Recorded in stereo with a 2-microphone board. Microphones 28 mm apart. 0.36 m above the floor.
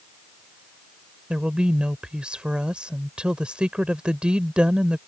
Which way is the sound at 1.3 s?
40° right (ahead or behind).